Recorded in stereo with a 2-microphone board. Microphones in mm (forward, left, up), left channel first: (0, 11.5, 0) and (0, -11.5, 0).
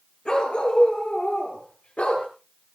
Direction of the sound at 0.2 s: 35° left (ahead or behind).